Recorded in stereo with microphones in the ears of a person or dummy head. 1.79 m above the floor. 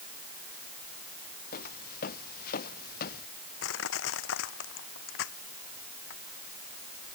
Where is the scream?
I don't hear a scream.